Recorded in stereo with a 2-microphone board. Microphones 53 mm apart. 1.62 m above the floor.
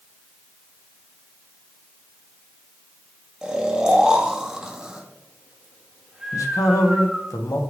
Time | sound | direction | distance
3.4 | snoring | 15° right (ahead or behind) | 1.3 m
6.3 | a man speaking | 80° left | 1.2 m